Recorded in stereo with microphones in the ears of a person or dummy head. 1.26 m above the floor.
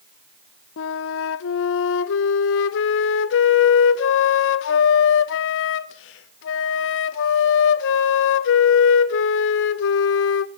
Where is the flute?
75° left (ahead or behind), 0.6 m.